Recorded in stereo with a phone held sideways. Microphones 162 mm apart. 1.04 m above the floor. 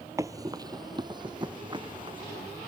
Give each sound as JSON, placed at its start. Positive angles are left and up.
{"t": 0.2, "sound": "running footsteps", "side_deg": -20}